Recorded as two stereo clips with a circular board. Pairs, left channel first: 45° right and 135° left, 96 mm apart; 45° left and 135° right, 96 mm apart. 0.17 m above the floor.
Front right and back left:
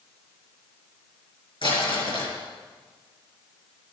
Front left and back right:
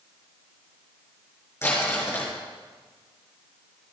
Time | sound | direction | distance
1.6 | crumpling | 20° right | 6 m